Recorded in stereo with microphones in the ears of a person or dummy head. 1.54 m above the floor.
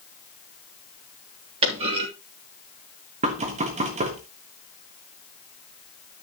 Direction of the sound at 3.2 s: 35° right (ahead or behind).